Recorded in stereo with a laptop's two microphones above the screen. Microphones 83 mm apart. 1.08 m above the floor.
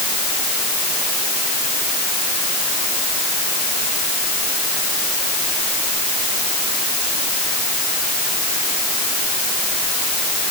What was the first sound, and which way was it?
Only background noise.